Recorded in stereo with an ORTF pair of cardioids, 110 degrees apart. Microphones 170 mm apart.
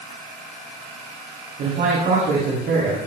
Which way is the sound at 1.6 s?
60° right.